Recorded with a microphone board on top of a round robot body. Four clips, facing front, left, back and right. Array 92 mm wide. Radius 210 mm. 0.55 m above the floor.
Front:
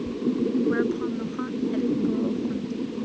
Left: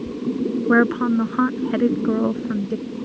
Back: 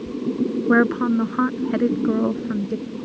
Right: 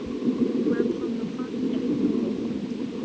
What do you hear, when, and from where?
0.7 s a woman speaking: 130° left